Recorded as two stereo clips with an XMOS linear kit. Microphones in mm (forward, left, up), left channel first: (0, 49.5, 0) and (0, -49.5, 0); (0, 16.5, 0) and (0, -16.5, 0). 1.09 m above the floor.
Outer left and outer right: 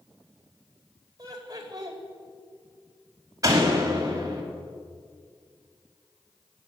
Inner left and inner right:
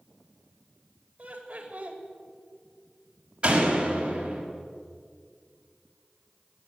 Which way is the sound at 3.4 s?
35° right (ahead or behind).